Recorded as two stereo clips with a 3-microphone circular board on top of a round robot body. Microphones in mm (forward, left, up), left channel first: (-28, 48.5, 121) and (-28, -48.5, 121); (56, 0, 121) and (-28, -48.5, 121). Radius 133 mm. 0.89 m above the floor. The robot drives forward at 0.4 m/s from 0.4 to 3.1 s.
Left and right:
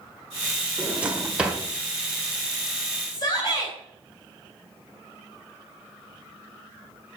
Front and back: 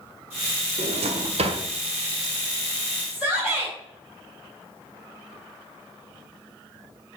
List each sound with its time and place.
0.8 s a drawer: 165° right, 1.4 m; by 1.6 s 170° right, 1.7 m
3.1 s a shout: 130° left, 4 m